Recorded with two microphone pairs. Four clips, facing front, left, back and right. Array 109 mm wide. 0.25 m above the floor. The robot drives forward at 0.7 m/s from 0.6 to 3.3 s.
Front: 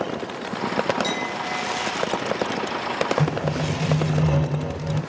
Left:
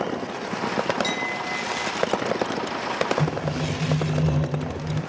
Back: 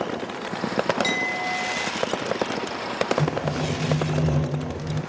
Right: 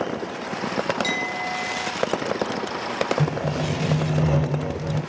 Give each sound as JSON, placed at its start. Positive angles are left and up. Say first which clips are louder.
{"t": 1.0, "sound": "a clink", "louder": "right 1 dB, even", "azimuth_deg": -155, "distance_m": 2.5}
{"t": 3.2, "sound": "sawing", "louder": "right 1 dB, front 1 dB", "azimuth_deg": -60, "distance_m": 1.5}